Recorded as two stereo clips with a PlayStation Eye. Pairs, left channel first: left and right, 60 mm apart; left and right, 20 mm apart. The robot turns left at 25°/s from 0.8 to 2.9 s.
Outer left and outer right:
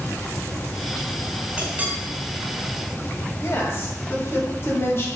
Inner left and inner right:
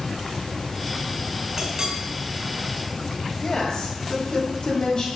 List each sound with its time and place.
1.6 s a clink: 20° right (ahead or behind), 1.9 m; by 1.9 s 30° right (ahead or behind), 1.9 m
3.4 s a woman speaking: 45° left (ahead or behind), 1.8 m